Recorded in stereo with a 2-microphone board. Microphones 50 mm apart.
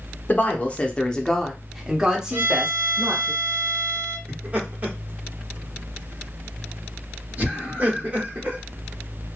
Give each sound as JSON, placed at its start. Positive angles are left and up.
{"t": 0.3, "sound": "a woman speaking", "side_deg": 40, "distance_m": 0.9}
{"t": 2.3, "sound": "a violin", "side_deg": -50, "distance_m": 0.7}
{"t": 4.3, "sound": "laughter", "side_deg": -35, "distance_m": 1.4}